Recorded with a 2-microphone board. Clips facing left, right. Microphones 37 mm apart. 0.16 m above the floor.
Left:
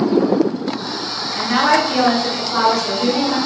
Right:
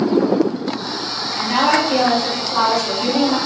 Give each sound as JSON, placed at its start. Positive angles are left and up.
{"t": 1.4, "sound": "a woman speaking", "side_deg": 50, "distance_m": 1.9}